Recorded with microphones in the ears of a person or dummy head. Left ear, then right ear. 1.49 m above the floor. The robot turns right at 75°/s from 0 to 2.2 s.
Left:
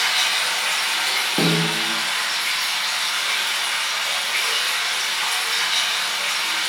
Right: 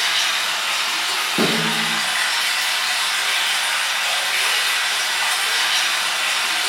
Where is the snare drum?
140° left, 1.1 m; by 1.9 s straight behind, 1.1 m.